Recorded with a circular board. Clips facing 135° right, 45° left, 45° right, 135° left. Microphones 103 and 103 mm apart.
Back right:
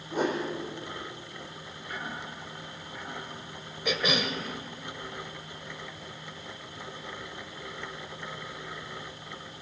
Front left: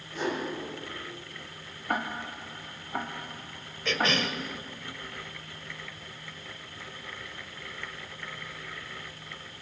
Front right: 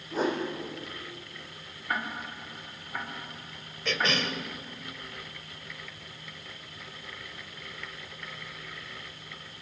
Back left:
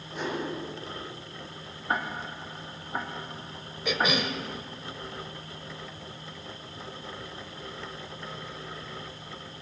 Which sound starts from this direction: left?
Ticking, at 1.9 s.